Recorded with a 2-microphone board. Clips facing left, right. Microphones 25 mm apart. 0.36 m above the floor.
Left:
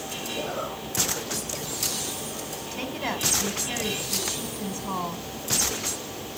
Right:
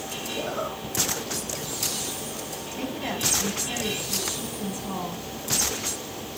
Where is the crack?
I don't hear a crack.